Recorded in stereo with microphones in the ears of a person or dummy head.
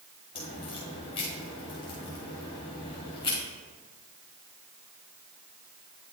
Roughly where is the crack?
Centre.